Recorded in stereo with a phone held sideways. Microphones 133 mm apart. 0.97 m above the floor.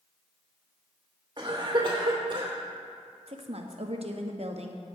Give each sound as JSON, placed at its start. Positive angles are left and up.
{"t": 1.4, "sound": "a cough", "side_deg": -40, "distance_m": 2.5}
{"t": 3.3, "sound": "a woman speaking", "side_deg": -55, "distance_m": 1.0}